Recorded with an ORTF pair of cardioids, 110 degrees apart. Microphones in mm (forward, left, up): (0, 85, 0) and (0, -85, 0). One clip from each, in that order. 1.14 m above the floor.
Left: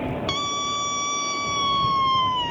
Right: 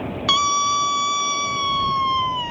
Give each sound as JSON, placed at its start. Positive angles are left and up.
{"t": 0.3, "sound": "a scream", "azimuth_deg": -35}